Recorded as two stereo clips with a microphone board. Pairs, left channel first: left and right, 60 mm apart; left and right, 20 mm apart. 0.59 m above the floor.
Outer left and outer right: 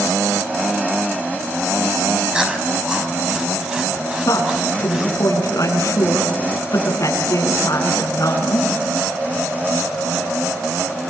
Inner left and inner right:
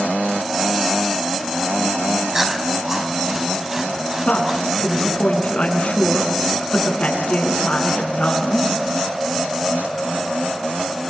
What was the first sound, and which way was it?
Chewing, 15° right (ahead or behind).